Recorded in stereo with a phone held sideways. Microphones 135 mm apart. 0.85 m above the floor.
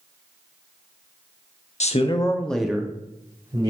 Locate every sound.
1.8 s a man speaking: 60° left (ahead or behind), 0.8 m; by 3.7 s 30° right (ahead or behind), 1.9 m